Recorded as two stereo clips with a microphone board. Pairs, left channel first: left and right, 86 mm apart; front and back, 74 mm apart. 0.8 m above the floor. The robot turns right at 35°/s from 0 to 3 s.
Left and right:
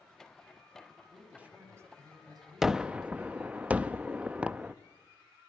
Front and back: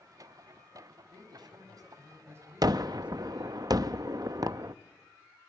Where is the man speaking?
170° right, 5.5 m; by 3.6 s 100° right, 5.5 m.